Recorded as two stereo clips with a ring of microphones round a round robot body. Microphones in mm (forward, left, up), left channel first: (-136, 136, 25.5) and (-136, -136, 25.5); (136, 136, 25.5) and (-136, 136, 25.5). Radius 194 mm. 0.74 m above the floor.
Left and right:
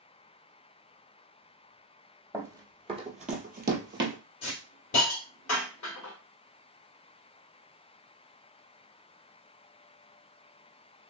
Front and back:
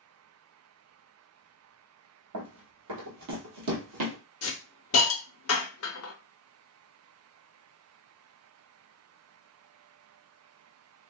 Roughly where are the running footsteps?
Behind.